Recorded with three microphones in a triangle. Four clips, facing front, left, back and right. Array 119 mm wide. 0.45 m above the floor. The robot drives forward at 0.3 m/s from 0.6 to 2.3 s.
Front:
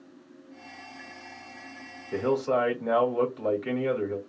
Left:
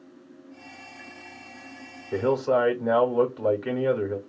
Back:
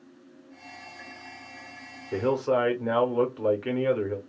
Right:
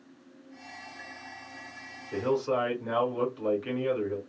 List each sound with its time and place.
2.1 s a man speaking: 140° left, 0.9 m